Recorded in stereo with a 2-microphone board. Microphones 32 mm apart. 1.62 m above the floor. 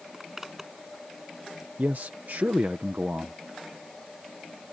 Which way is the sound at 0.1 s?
10° right (ahead or behind).